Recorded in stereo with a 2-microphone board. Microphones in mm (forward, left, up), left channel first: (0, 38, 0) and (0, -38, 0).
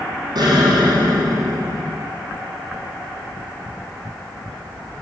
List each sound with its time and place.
0.3 s an explosion: 65° right (ahead or behind), 7 m